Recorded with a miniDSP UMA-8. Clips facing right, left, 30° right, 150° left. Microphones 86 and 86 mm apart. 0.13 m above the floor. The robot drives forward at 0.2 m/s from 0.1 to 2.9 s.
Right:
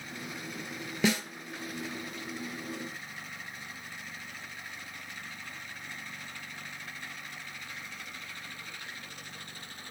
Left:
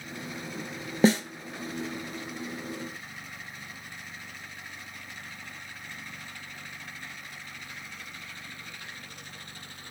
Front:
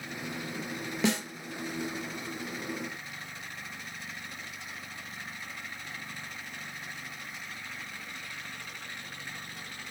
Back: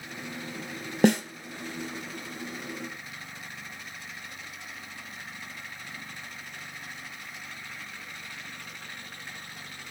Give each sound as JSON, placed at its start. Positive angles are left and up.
{"t": 1.0, "sound": "a snare drum", "azimuth_deg": 135, "distance_m": 0.5}